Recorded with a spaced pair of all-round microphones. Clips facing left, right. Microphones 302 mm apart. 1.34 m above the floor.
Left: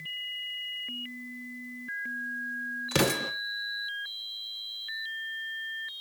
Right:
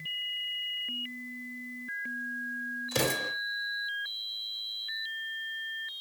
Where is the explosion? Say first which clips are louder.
Left 4 dB; 80° left, 1.1 m.